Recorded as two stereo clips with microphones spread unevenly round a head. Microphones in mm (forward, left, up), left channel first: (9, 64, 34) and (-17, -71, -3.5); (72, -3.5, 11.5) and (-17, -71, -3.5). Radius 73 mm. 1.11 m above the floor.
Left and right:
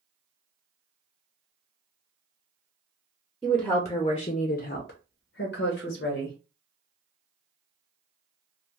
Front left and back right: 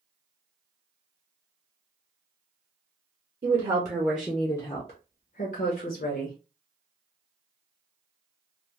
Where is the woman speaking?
175° left, 0.7 m; by 6.3 s 50° left, 1.1 m.